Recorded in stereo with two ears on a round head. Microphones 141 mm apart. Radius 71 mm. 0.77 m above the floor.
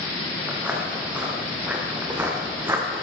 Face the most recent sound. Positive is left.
turn(degrees=-20)  # may be behind; listen again after turning